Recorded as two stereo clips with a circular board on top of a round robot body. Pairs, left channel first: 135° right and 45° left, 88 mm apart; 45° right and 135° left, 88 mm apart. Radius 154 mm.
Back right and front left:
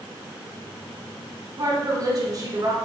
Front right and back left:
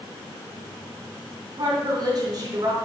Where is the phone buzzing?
No phone buzzing in this recording.